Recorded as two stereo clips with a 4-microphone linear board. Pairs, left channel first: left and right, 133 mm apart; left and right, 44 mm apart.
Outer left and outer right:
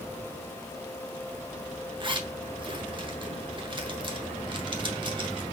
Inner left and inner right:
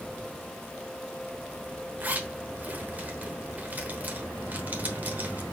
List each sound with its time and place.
2.0 s a zipper: 40° right (ahead or behind), 1.0 m